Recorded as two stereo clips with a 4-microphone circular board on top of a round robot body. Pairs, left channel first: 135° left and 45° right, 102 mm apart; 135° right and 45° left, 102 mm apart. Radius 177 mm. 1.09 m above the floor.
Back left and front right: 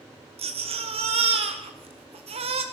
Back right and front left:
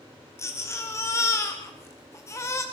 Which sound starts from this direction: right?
A baby crying, at 0.4 s.